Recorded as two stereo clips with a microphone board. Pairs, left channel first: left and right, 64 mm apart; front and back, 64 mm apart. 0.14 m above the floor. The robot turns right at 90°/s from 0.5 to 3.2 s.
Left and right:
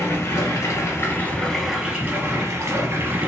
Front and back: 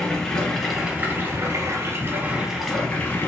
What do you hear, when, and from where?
0.0 s running water: 75° left, 1.3 m; by 3.3 s 45° right, 1.3 m